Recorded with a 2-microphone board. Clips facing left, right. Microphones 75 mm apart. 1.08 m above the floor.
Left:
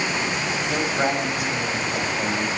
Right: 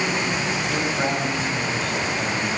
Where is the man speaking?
15° left (ahead or behind), 6 m.